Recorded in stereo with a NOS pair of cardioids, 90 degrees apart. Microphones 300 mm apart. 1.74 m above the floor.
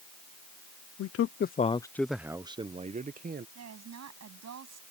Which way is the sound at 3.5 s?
60° right.